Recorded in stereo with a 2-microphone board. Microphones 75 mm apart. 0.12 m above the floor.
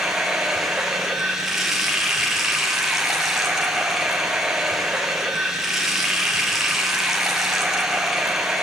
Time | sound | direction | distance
0.0 | running water | 5° right (ahead or behind) | 4.5 m